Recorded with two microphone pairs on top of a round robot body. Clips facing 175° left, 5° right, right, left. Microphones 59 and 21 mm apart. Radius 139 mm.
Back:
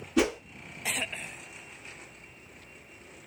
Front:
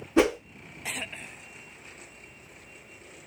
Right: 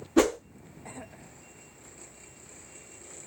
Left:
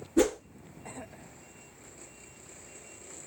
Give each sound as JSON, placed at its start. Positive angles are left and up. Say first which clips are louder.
{"t": 0.2, "sound": "a whoosh", "louder": "front 4 dB, right 2 dB", "azimuth_deg": -60, "distance_m": 0.6}